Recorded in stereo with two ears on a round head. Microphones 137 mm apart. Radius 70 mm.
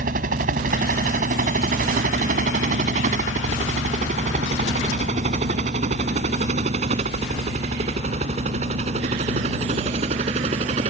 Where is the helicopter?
50° right (ahead or behind); by 10.9 s 35° right (ahead or behind).